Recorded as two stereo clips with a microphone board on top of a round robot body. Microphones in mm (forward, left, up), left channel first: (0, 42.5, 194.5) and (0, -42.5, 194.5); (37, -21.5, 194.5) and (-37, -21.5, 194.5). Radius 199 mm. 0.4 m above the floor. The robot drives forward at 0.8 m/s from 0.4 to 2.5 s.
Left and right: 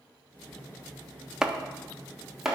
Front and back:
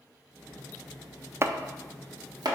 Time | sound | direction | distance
1.4 | chopping | 170° right | 0.7 m